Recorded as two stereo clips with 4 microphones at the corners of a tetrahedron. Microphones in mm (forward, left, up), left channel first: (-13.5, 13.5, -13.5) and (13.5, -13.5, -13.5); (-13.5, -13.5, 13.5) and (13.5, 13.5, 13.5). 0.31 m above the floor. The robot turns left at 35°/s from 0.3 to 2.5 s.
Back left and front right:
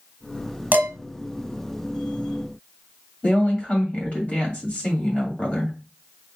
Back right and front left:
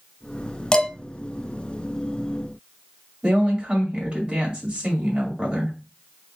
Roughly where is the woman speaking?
Left.